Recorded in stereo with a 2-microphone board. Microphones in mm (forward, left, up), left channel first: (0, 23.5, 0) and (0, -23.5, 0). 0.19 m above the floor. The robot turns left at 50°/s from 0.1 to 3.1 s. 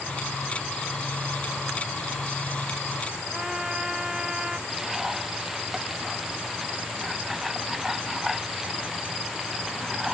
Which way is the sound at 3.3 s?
10° right (ahead or behind).